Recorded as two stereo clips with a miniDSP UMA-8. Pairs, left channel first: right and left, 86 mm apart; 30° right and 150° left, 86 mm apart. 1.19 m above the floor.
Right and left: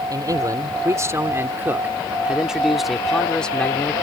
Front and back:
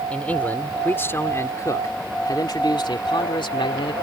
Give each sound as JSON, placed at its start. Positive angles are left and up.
{"t": 0.1, "sound": "a man speaking", "azimuth_deg": 45}